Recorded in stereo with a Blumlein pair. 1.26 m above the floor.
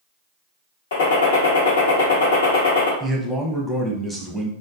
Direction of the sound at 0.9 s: 60° left.